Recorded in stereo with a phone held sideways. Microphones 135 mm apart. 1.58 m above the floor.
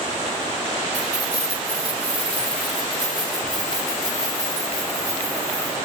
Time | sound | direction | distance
0.9 | keys jangling | 55° right (ahead or behind) | 2.5 m